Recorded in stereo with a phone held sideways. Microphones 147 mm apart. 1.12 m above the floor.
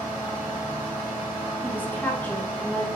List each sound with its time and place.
0.0 s a fan: 20° right (ahead or behind), 1.3 m
1.6 s a woman speaking: 10° left (ahead or behind), 0.6 m